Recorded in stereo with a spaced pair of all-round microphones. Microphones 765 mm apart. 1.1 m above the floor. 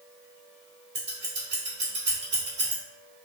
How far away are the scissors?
About 1.3 m.